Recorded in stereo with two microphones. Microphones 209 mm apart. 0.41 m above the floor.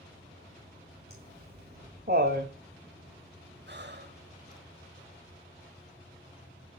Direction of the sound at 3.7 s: 55° right (ahead or behind).